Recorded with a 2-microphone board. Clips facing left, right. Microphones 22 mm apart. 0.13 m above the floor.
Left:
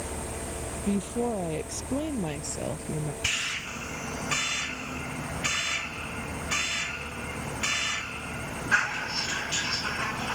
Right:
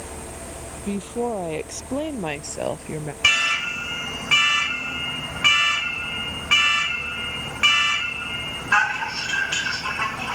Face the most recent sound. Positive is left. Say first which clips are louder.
# right 12 dB
turn(degrees=-75)  # may be behind; listen again after turning